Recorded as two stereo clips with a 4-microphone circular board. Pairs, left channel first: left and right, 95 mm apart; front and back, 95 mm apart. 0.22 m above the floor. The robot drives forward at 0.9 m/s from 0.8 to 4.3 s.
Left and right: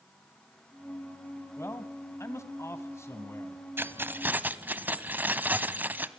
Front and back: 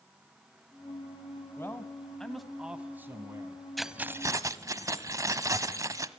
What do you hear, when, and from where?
1.6 s a man speaking: 45° left, 1.8 m; by 3.6 s 145° left, 2.0 m
3.8 s keys jangling: 85° right, 0.7 m; by 6.1 s 150° right, 0.8 m